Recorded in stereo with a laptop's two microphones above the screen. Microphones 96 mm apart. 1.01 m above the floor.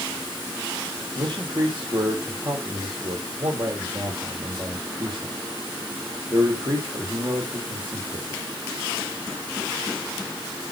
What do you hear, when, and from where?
1.1 s a man speaking: 50° right (ahead or behind), 4.5 m